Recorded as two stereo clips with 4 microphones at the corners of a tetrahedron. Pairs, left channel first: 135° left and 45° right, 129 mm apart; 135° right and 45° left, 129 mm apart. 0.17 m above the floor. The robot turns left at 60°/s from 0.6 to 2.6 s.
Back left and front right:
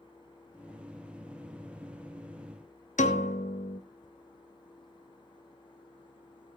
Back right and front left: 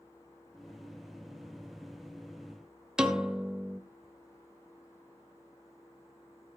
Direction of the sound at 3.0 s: 130° left.